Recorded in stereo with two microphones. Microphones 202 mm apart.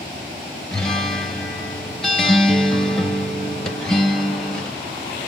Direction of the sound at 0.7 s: 5° left (ahead or behind).